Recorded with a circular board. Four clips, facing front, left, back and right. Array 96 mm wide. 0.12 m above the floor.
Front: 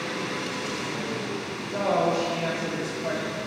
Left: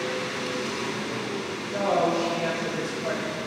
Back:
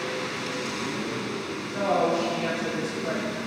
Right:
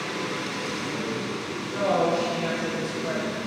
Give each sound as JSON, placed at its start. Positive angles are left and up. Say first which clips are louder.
{"t": 1.7, "sound": "a woman speaking", "louder": "even, even", "azimuth_deg": 30, "distance_m": 1.7}